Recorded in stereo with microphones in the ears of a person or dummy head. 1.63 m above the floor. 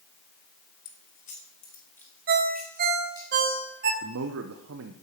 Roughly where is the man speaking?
Right.